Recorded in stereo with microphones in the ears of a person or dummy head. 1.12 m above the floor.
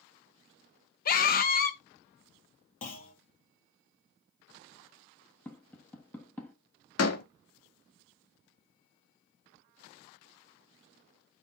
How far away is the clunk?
About 1.4 m.